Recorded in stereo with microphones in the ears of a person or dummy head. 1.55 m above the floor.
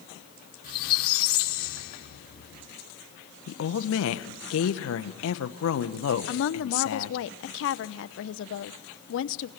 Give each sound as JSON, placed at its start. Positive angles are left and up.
{"t": 0.6, "sound": "a squeak", "side_deg": 55, "distance_m": 1.9}
{"t": 3.5, "sound": "a woman speaking", "side_deg": 80, "distance_m": 1.5}
{"t": 6.3, "sound": "a woman speaking", "side_deg": 70, "distance_m": 0.8}